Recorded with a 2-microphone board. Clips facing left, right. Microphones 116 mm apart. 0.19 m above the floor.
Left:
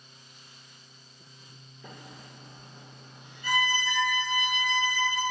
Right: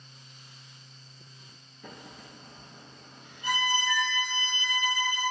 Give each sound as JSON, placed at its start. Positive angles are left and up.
{"t": 1.8, "sound": "a microwave", "side_deg": -50, "distance_m": 1.7}
{"t": 3.4, "sound": "a violin", "side_deg": -20, "distance_m": 1.4}